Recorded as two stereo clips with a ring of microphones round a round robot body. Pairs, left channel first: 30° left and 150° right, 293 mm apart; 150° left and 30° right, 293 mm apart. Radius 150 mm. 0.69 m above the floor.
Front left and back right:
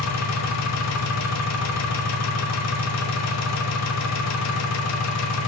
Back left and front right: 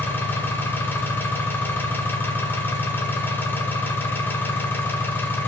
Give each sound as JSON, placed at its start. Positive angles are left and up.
{"t": 0.0, "sound": "an engine running", "azimuth_deg": 65, "distance_m": 0.8}